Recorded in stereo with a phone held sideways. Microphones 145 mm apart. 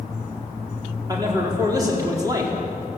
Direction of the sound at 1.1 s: 25° right (ahead or behind).